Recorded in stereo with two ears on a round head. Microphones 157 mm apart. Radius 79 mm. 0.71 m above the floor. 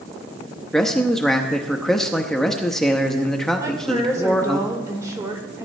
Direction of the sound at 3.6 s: 20° right (ahead or behind).